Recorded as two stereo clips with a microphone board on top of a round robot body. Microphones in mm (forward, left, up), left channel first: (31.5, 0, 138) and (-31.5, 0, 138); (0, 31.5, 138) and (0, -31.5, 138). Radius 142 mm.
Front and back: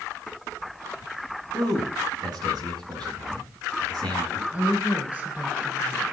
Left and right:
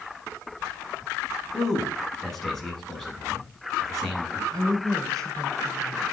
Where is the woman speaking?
115° right, 5.5 m.